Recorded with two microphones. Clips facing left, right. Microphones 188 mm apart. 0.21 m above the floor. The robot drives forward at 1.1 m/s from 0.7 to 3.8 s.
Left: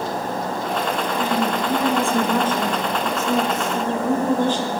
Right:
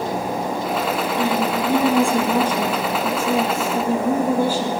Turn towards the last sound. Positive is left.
turn(degrees=-10)  # may be behind; listen again after turning